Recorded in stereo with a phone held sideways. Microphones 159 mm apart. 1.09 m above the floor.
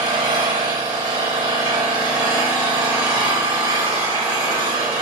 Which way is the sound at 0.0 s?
30° right (ahead or behind).